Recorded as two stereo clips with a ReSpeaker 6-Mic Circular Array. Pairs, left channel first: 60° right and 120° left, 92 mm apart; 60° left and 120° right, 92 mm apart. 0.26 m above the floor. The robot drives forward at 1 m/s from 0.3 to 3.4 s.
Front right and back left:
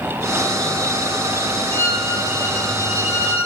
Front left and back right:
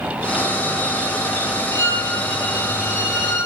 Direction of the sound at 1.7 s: Straight ahead.